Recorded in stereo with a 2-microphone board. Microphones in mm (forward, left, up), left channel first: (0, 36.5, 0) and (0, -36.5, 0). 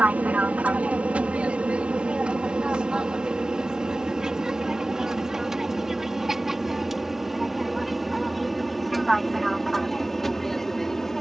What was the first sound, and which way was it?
An aircraft, 20° right (ahead or behind).